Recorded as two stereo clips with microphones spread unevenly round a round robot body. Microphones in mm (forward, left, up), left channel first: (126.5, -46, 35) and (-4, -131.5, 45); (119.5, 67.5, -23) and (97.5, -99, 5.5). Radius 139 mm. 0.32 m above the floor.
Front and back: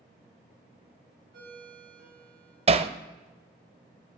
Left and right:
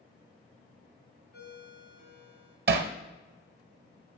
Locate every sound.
1.3 s a ringtone: 110° left, 2 m
2.7 s hammering: 105° right, 0.5 m